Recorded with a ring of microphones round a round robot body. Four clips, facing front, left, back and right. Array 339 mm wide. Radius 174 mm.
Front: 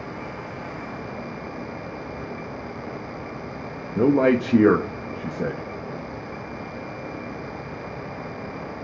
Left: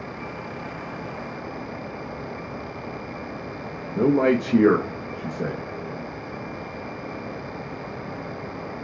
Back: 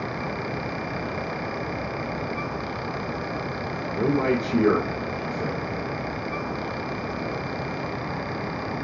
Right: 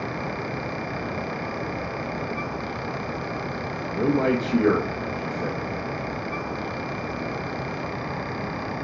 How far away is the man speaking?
About 1.0 m.